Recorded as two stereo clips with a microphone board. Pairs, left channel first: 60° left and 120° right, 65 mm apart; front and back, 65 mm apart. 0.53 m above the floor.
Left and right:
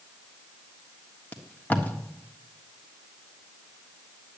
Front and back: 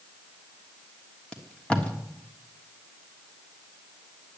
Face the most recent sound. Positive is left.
turn(degrees=45)